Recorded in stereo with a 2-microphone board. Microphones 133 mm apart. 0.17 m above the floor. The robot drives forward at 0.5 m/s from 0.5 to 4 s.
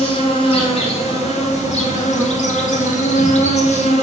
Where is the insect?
45° left (ahead or behind), 1.7 m; by 4.0 s 55° left (ahead or behind), 1.6 m.